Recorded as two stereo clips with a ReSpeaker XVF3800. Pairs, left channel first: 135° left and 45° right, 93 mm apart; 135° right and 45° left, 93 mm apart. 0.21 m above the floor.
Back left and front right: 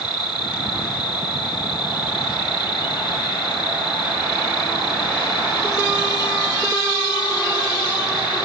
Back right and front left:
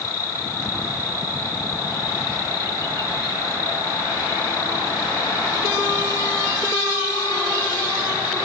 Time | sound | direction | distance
0.0 | an insect | 175° left | 7 m